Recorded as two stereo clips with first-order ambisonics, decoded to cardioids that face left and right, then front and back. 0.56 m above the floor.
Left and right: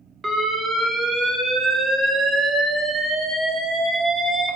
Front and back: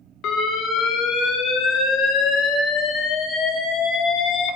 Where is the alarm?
25° right, 0.6 m.